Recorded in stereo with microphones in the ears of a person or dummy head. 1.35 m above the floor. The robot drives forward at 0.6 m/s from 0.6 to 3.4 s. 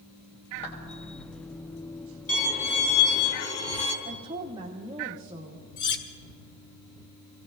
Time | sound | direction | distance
0.6 | a clap | 40° left (ahead or behind) | 2.5 m
2.3 | a violin | 40° left (ahead or behind) | 3.5 m
4.0 | a woman speaking | 20° right (ahead or behind) | 1.1 m
5.8 | cutlery clinking | 60° left (ahead or behind) | 1.5 m